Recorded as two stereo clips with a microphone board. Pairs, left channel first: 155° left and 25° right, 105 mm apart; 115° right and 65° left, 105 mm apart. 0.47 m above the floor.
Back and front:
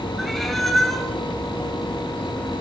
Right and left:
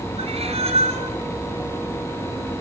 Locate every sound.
0.2 s a cat meowing: 70° left, 3 m